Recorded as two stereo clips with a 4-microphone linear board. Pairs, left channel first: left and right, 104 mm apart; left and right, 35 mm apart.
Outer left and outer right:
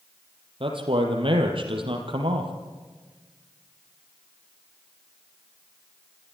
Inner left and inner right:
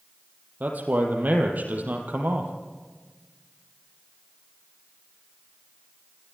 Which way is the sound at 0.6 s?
60° right (ahead or behind).